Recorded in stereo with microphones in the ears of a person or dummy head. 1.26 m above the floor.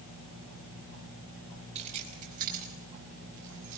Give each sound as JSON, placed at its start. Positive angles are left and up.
{"t": 1.8, "sound": "keys jangling", "side_deg": -35, "distance_m": 5.0}